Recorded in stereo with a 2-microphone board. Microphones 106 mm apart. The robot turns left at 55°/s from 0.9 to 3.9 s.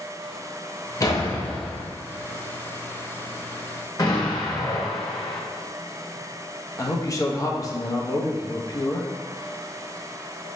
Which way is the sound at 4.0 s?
40° left (ahead or behind).